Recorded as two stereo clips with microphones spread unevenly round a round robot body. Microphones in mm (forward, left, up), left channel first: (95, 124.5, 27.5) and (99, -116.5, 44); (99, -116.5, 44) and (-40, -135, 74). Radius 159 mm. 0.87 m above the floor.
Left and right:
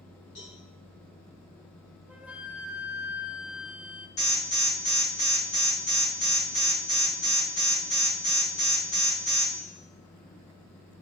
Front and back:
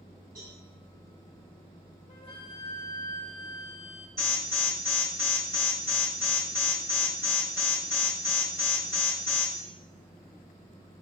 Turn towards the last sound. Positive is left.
turn(degrees=110)